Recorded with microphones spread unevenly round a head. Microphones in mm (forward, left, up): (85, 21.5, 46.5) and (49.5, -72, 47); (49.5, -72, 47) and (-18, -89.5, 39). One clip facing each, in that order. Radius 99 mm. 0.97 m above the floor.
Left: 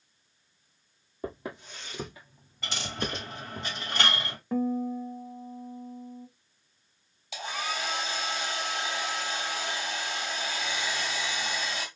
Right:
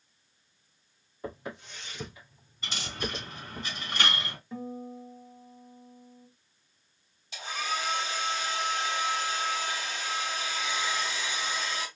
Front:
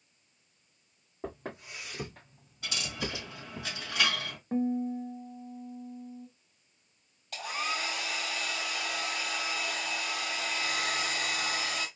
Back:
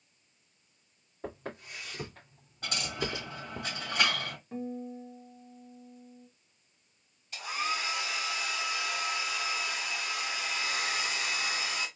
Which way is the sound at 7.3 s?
70° left.